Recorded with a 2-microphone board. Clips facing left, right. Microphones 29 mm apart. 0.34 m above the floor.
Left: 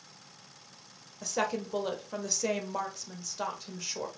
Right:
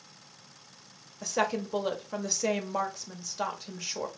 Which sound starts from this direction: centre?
A woman speaking, at 1.2 s.